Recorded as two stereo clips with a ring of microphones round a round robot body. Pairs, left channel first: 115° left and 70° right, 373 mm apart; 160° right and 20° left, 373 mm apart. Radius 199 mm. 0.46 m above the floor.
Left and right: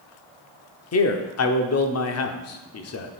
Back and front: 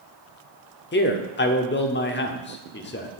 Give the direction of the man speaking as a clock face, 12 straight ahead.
7 o'clock.